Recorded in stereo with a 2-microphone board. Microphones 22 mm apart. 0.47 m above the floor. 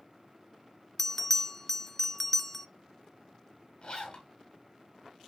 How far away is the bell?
About 0.5 m.